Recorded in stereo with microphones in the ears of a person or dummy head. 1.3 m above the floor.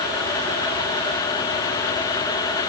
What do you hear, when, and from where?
Only background noise.